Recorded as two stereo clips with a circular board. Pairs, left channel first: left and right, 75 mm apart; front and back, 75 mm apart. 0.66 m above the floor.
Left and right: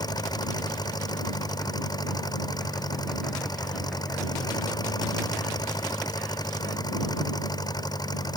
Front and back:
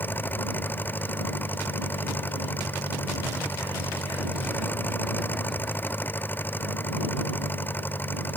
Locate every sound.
0.0 s an engine running: 60° left